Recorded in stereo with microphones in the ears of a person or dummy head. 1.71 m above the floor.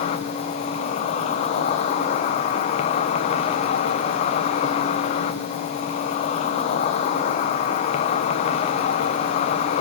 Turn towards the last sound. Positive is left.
turn(degrees=35)  # may be behind; listen again after turning